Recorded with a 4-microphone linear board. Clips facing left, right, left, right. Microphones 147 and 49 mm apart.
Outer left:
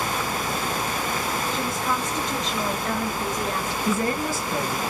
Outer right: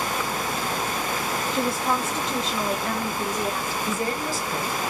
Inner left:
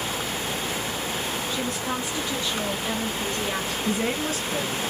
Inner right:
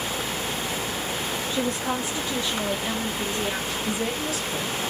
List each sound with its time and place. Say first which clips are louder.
1.5 s a woman speaking: outer right 6 dB, inner right 2 dB; 40° right (ahead or behind), 0.5 m; by 3.8 s 15° right (ahead or behind), 1.7 m
3.9 s a woman speaking: outer left 4 dB, inner left 3 dB; 55° left (ahead or behind), 1.3 m